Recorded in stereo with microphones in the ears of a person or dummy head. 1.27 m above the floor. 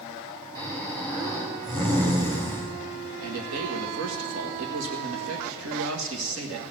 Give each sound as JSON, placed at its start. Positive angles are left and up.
{"t": 0.6, "sound": "snoring", "side_deg": -25, "distance_m": 3.5}
{"t": 3.2, "sound": "a man speaking", "side_deg": -80, "distance_m": 1.8}